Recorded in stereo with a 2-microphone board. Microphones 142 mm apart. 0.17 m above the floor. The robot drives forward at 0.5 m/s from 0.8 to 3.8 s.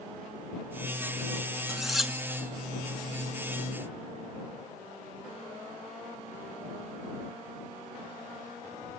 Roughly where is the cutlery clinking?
Centre.